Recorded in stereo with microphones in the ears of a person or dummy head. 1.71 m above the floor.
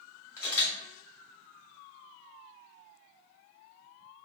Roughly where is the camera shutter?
Centre.